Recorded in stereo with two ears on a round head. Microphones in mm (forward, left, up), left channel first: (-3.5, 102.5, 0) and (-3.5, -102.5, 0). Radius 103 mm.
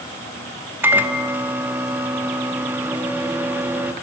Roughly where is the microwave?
Centre.